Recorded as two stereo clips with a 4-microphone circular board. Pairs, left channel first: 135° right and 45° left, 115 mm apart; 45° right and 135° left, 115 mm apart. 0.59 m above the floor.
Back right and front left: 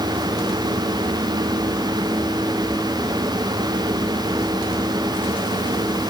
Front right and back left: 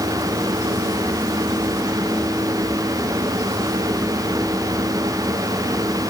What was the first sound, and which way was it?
Only background noise.